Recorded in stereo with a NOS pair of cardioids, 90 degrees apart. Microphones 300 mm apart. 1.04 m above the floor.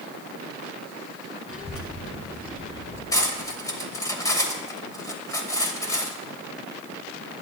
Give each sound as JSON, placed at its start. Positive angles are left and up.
{"t": 1.5, "sound": "a child speaking", "azimuth_deg": 50, "distance_m": 4.5}
{"t": 3.1, "sound": "cutlery clinking", "azimuth_deg": 10, "distance_m": 2.5}